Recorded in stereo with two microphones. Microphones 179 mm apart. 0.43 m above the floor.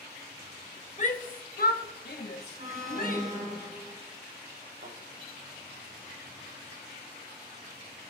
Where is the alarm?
45° right (ahead or behind), 3 m.